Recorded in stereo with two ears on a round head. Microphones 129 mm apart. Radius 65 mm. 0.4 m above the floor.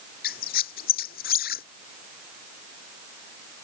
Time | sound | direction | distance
0.2 | a squeak | 75° left (ahead or behind) | ?